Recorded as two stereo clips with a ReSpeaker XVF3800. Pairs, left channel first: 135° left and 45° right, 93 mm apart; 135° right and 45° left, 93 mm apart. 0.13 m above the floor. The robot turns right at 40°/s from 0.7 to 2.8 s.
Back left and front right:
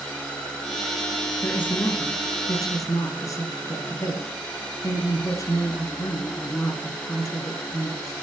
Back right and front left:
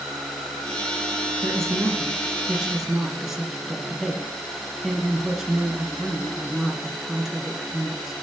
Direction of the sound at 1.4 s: 70° left.